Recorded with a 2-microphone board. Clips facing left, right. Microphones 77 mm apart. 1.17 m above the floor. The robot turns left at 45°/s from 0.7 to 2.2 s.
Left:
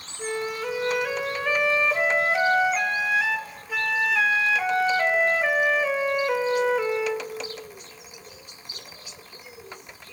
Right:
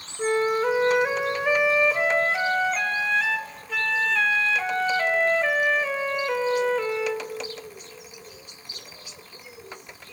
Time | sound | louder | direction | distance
0.2 | a flute | right 7 dB | 125° right | 0.7 m